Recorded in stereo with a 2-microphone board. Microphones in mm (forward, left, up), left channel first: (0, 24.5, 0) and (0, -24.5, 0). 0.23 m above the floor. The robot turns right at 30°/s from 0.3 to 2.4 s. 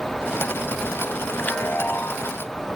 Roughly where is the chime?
Left.